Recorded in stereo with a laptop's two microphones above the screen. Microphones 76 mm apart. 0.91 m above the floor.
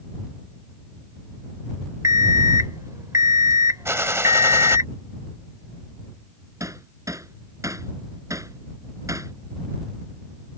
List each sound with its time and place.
2.0 s an alarm clock: 45° right (ahead or behind)
3.9 s a gunshot: 40° right (ahead or behind)
6.6 s hammering: 45° right (ahead or behind)